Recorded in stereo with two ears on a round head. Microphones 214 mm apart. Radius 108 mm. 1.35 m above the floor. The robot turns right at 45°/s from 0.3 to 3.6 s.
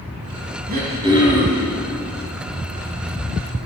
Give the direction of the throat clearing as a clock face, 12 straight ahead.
1 o'clock.